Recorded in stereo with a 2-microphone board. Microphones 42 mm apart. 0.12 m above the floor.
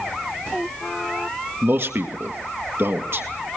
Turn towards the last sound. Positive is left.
turn(degrees=-60)  # may be behind; listen again after turning